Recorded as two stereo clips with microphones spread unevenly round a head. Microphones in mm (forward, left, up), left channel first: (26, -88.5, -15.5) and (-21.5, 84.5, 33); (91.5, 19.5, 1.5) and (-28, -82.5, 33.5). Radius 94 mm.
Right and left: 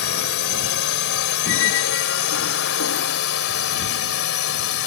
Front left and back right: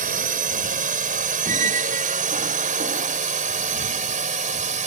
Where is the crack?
No crack in this recording.